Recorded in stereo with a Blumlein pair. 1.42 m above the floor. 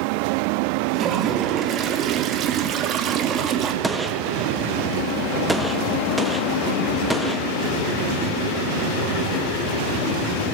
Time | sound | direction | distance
0.9 | a toilet flushing | 30° right | 3.5 m
3.8 | a gunshot | 5° right | 1.8 m